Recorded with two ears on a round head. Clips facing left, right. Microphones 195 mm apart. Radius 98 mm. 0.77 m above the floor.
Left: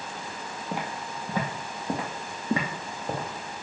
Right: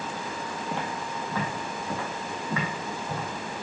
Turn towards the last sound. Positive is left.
turn(degrees=35)  # may be behind; listen again after turning